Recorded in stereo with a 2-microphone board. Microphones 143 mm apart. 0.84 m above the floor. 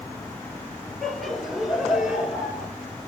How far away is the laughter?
About 3 m.